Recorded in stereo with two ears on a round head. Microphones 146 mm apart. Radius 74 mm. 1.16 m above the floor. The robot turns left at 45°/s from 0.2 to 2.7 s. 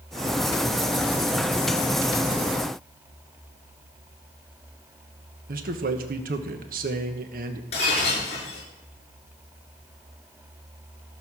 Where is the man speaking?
60° right (ahead or behind), 1.2 m.